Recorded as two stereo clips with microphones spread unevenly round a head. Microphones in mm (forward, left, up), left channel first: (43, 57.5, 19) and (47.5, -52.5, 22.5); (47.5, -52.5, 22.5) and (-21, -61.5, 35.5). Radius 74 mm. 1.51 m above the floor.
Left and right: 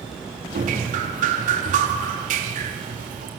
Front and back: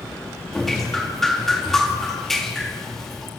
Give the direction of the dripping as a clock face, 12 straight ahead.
3 o'clock.